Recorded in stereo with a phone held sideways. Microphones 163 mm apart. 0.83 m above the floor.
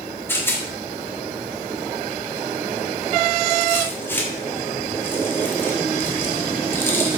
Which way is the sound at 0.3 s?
15° left (ahead or behind).